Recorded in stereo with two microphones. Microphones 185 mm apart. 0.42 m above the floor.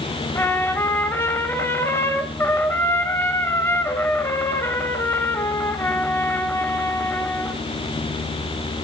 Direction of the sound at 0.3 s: 15° left (ahead or behind).